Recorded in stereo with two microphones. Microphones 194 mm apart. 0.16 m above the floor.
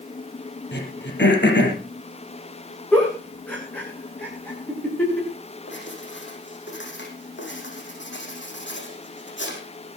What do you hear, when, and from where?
0.7 s throat clearing: 70° left (ahead or behind), 4.5 m
2.9 s a giggle: 10° left (ahead or behind), 7 m
5.7 s writing: 80° left, 6 m